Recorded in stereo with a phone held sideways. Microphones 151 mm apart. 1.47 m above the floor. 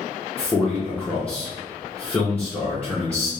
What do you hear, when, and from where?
0.4 s a man speaking: 10° left (ahead or behind), 0.8 m